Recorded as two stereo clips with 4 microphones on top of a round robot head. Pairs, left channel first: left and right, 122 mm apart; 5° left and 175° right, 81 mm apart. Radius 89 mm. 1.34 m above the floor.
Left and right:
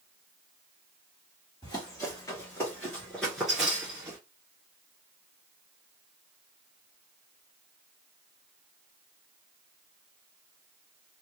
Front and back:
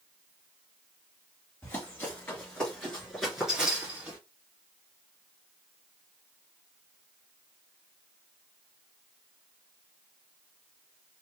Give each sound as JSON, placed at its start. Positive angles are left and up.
{"t": 1.6, "sound": "running footsteps", "azimuth_deg": 50, "distance_m": 1.6}